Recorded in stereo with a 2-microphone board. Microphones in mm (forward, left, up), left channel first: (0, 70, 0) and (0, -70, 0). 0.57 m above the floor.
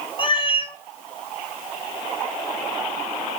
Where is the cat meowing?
35° left (ahead or behind), 0.6 m.